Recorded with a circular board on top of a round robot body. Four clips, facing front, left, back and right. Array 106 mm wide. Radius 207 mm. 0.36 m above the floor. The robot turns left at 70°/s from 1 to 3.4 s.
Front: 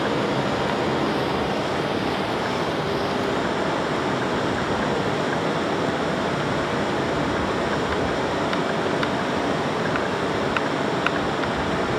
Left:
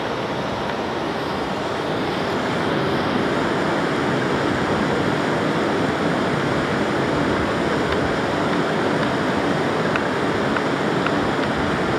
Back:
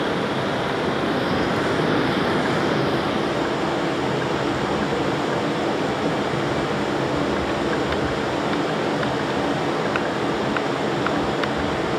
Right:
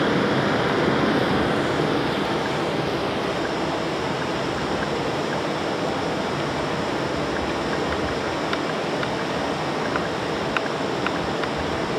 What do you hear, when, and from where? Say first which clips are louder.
0.0 s running water: right 3 dB, even; 105° right, 8.5 m; by 12.0 s 90° left, 8.5 m